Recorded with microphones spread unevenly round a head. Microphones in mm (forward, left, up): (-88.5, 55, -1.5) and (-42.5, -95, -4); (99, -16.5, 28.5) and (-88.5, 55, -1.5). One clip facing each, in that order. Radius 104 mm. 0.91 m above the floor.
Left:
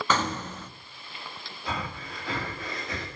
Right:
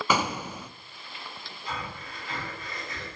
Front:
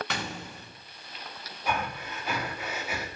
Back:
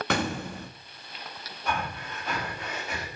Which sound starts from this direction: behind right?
An explosion, at 0.1 s.